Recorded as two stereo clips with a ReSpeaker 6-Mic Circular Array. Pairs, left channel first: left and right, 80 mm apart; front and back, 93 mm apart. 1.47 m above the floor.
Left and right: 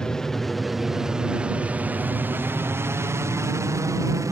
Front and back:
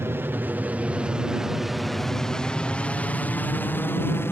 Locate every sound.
0.0 s an aircraft: 160° left; by 4.3 s 55° right